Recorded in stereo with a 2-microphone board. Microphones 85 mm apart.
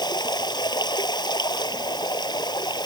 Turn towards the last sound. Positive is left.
turn(degrees=55)  # may be behind; listen again after turning